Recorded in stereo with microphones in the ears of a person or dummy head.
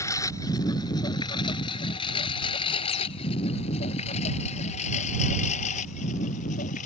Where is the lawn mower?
20° left (ahead or behind); by 6.9 s 45° left (ahead or behind).